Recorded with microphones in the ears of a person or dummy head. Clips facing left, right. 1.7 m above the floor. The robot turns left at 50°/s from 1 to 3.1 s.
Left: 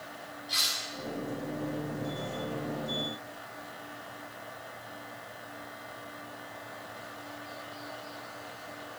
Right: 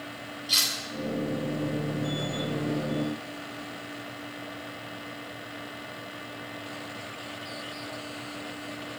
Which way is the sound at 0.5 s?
45° right (ahead or behind).